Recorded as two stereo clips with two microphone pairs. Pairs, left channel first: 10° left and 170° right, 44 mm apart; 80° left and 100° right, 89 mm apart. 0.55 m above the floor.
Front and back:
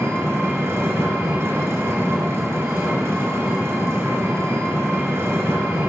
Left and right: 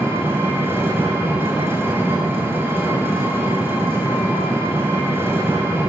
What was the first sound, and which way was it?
An engine running, 165° right.